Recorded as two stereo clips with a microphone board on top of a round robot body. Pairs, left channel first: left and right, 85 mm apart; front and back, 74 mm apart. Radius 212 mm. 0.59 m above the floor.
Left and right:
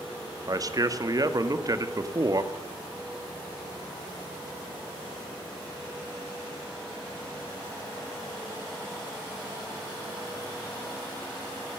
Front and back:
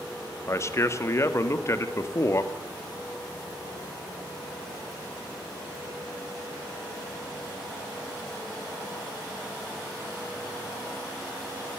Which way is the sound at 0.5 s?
50° right.